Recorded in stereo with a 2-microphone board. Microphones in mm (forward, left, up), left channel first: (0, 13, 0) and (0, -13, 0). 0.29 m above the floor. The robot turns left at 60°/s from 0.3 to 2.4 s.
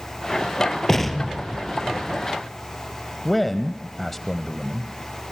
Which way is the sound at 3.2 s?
10° left (ahead or behind).